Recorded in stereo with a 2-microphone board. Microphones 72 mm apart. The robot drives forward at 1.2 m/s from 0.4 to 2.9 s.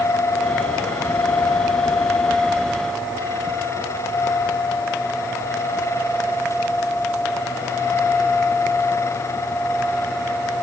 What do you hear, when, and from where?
Only background noise.